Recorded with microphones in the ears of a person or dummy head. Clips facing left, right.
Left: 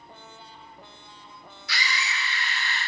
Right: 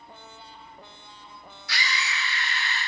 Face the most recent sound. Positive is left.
turn(degrees=5)  # may be behind; listen again after turning